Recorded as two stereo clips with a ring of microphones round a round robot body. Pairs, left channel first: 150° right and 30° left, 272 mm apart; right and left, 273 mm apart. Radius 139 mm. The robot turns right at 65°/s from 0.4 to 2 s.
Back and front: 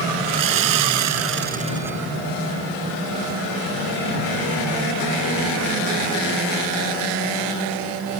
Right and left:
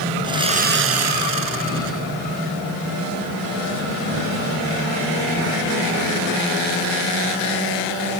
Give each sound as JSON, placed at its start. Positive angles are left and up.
{"t": 0.2, "sound": "sawing", "azimuth_deg": 15}